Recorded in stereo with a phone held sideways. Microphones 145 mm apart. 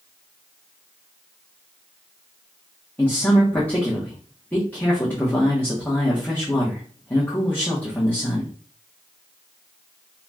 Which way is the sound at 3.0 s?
10° left (ahead or behind).